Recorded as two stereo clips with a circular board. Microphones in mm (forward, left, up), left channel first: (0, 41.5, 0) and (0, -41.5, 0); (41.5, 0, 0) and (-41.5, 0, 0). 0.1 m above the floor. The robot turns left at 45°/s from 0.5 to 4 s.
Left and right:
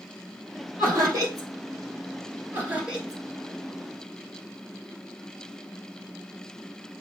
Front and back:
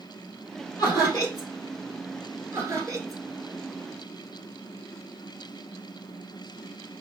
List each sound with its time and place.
0.8 s laughter: 30° right, 2.5 m; by 1.5 s 60° right, 2.5 m
2.5 s laughter: 140° right, 2.0 m; by 3.2 s 170° right, 2.0 m